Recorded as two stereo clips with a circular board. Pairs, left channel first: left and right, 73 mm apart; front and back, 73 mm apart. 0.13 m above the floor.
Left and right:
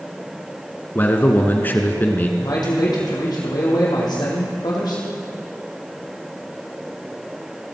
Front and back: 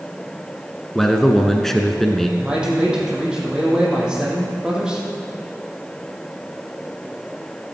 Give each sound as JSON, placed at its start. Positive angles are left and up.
{"t": 0.9, "sound": "a man speaking", "azimuth_deg": 80, "distance_m": 1.1}
{"t": 2.4, "sound": "a man speaking", "azimuth_deg": 105, "distance_m": 4.0}